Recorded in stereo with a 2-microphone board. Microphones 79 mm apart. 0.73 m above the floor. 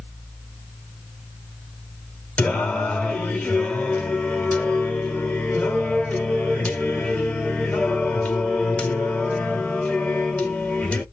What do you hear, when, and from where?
2.4 s singing: 15° left (ahead or behind), 0.9 m